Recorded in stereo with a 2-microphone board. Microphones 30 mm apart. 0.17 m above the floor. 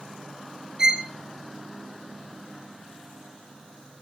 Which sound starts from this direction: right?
A violin, at 0.8 s.